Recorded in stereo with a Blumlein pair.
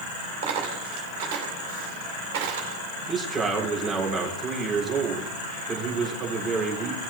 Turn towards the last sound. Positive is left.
turn(degrees=-15)